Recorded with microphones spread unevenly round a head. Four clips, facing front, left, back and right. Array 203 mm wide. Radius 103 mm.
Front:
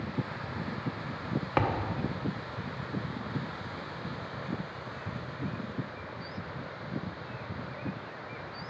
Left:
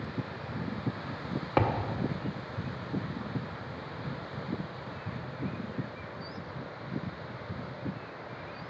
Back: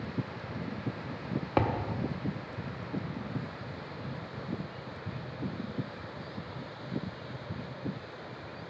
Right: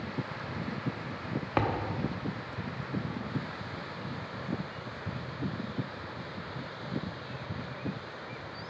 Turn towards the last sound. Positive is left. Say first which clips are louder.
# left 2 dB, even
turn(degrees=160)